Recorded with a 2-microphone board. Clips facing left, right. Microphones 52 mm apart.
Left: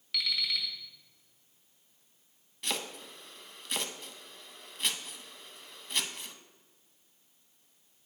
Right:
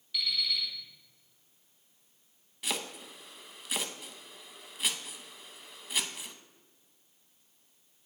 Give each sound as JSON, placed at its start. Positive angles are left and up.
{"t": 0.1, "sound": "an alarm clock", "side_deg": 75, "distance_m": 2.0}
{"t": 2.6, "sound": "chopping", "side_deg": -5, "distance_m": 0.6}